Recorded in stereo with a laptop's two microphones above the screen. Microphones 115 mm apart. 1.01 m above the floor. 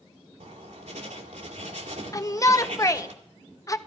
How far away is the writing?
About 2 m.